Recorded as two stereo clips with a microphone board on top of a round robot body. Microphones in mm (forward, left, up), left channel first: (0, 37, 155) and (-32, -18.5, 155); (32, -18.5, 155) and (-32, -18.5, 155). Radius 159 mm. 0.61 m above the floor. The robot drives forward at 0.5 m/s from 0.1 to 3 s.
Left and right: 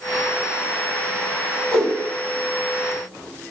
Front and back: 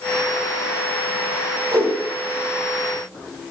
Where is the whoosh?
145° left, 4.5 m.